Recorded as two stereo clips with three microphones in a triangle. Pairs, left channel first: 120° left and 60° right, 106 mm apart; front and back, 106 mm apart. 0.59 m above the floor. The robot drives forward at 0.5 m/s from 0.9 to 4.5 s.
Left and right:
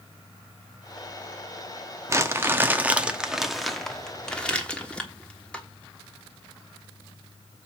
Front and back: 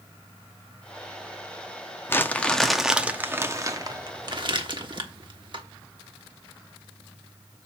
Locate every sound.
2.1 s crumpling: 40° right, 0.9 m; by 5.7 s 165° right, 1.2 m